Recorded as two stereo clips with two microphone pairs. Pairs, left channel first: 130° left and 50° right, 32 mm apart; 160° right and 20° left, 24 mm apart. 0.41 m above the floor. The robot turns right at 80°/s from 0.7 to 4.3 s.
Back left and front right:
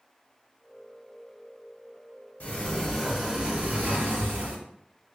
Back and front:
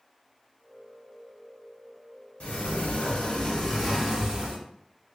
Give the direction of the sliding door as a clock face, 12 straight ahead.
6 o'clock.